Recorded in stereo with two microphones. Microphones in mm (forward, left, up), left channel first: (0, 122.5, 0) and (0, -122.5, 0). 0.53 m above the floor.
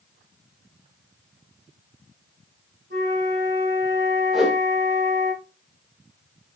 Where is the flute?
45° right (ahead or behind), 5.5 m.